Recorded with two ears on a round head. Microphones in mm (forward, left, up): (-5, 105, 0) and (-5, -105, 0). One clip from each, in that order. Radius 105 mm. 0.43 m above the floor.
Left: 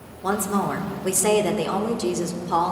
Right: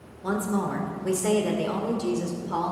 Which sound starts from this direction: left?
A woman speaking, at 0.2 s.